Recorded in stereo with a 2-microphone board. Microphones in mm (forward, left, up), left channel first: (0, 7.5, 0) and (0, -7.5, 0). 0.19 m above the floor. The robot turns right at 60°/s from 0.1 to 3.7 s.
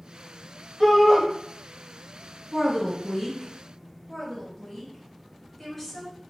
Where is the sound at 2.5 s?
160° left, 1.5 m; by 3.5 s 140° right, 1.5 m.